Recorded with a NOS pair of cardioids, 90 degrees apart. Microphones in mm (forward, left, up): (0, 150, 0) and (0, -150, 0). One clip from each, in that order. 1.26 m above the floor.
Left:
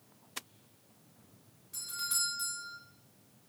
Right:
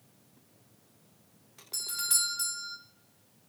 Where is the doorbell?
50° right, 1.0 m.